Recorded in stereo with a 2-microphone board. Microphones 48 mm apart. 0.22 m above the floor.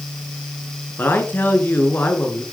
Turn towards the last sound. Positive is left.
turn(degrees=40)  # may be behind; listen again after turning